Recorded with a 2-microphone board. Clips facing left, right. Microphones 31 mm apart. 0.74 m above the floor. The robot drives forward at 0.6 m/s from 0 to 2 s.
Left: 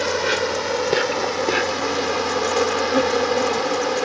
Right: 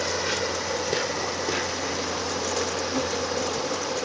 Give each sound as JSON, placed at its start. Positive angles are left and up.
{"t": 0.0, "sound": "an insect", "side_deg": 40}